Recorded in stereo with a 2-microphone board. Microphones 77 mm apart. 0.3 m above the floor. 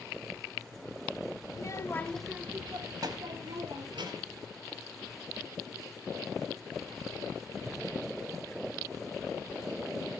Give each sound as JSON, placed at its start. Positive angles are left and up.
{"t": 1.5, "sound": "a child speaking", "side_deg": 50, "distance_m": 1.2}